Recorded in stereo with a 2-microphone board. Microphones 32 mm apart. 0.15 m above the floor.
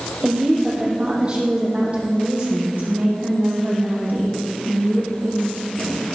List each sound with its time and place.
0.2 s a woman speaking: 30° right (ahead or behind), 5 m; by 6.0 s 75° right (ahead or behind), 6 m